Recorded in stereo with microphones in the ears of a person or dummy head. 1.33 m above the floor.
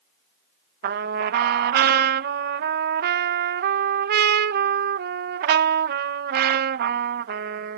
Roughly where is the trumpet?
Right.